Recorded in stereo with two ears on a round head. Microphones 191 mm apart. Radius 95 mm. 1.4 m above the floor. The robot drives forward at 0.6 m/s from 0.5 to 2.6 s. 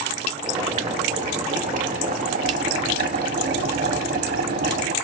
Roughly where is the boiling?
Right.